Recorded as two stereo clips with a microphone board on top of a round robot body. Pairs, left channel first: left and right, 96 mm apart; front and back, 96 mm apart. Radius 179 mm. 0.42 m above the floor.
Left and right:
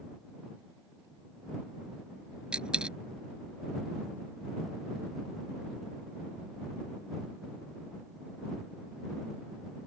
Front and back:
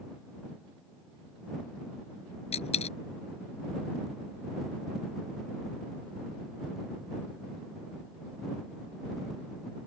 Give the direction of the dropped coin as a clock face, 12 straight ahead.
12 o'clock.